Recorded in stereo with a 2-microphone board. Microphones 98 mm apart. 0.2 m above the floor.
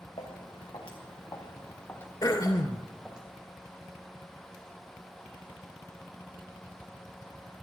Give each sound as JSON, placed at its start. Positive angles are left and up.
{"t": 0.2, "sound": "footsteps", "side_deg": 70, "distance_m": 2.5}
{"t": 2.2, "sound": "throat clearing", "side_deg": 40, "distance_m": 0.7}